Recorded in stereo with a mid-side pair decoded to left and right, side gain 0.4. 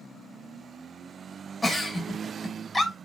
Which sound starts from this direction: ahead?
A giggle, at 1.6 s.